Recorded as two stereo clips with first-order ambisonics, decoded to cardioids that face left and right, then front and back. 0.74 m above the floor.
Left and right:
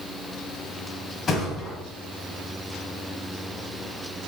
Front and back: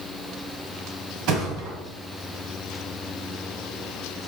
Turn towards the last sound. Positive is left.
turn(degrees=155)